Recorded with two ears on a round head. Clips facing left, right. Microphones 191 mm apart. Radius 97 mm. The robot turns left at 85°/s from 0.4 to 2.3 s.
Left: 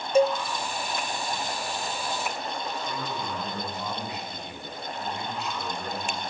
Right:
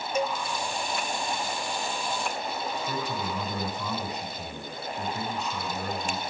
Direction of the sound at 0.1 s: 30° left (ahead or behind).